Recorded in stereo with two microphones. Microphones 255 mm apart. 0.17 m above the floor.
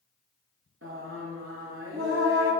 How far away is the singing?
About 2.5 m.